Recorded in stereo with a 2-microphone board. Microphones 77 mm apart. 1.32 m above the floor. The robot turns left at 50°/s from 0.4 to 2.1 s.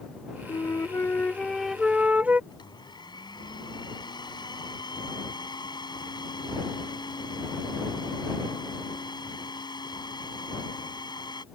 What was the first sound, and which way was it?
A flute, 60° left.